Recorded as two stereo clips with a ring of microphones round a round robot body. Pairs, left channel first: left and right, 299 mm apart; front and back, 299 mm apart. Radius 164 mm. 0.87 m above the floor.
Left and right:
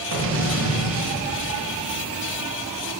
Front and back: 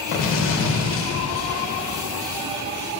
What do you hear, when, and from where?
0.1 s an explosion: 45° right, 0.9 m